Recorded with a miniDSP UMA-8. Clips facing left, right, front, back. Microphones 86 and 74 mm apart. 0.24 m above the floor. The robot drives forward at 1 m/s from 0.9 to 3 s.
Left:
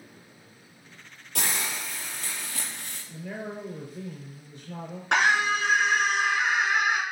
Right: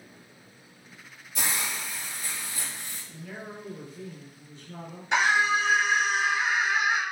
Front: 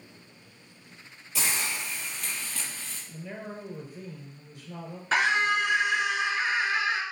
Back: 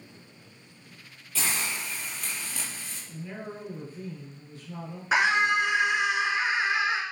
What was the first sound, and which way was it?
A hiss, 75° left.